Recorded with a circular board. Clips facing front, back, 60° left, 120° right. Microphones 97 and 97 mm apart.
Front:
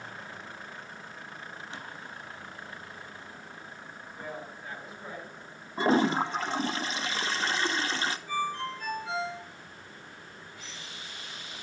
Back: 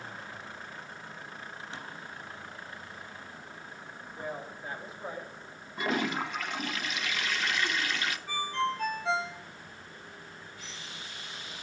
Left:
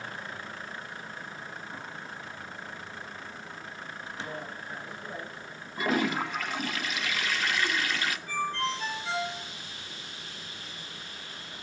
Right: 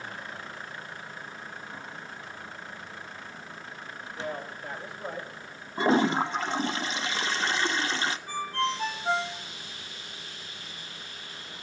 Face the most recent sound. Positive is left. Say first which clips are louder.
# back 5 dB, even
turn(degrees=-165)